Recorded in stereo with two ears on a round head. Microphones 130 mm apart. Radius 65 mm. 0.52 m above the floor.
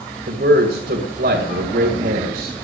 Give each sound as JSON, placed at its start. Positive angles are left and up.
{"t": 0.3, "sound": "a man speaking", "side_deg": -65, "distance_m": 2.5}